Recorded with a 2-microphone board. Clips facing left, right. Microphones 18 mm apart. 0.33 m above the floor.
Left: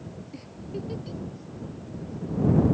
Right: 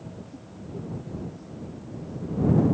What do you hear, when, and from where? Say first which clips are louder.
0.3 s a giggle: left 5 dB; 75° left (ahead or behind)